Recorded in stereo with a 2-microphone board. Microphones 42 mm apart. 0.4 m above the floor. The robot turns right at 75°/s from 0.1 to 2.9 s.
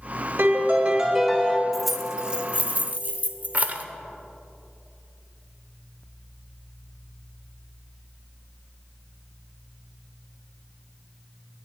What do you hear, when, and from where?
0.4 s a piano: 70° right, 1.2 m; by 1.6 s 20° left, 1.2 m
1.7 s keys jangling: 5° left (ahead or behind), 0.6 m; by 3.9 s 40° right (ahead or behind), 0.6 m